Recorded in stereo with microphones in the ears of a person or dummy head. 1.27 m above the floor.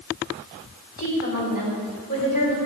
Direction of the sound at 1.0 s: 45° left (ahead or behind).